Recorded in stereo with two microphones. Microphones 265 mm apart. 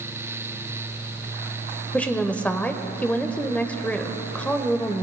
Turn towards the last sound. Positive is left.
turn(degrees=5)  # may be behind; listen again after turning